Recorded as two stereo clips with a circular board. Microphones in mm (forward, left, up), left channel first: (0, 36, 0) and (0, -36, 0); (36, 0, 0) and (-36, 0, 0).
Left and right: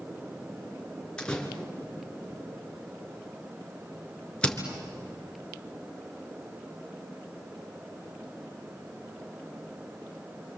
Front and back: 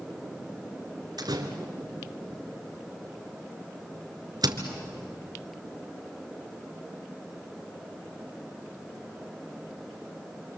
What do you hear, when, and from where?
1.2 s a door slam: 165° left, 2.5 m